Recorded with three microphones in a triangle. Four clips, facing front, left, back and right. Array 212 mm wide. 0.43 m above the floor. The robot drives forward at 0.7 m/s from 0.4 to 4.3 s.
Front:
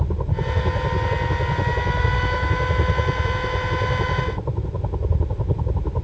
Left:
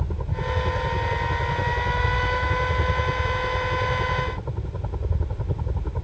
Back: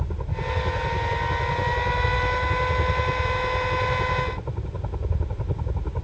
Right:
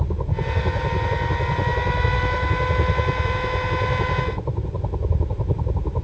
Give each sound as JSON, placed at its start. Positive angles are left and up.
{"t": 0.0, "sound": "a helicopter", "azimuth_deg": -40}